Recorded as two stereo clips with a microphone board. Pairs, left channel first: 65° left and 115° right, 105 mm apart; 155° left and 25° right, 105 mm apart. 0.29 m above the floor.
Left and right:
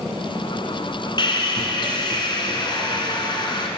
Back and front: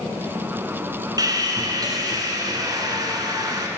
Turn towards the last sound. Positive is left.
turn(degrees=25)